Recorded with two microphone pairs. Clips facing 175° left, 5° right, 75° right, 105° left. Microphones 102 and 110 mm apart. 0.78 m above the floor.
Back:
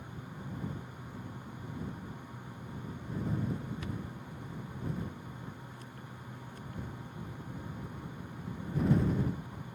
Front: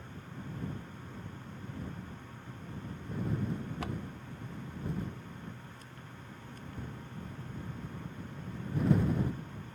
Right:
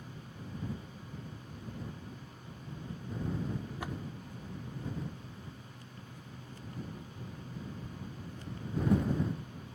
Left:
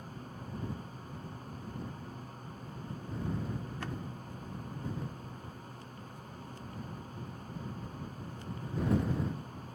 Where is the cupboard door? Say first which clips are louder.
Front 2 dB, even; straight ahead.